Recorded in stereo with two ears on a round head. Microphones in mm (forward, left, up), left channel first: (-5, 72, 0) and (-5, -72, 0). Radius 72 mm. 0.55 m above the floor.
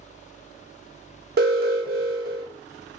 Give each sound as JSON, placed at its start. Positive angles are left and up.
{"t": 1.4, "sound": "an alarm", "side_deg": -60, "distance_m": 1.1}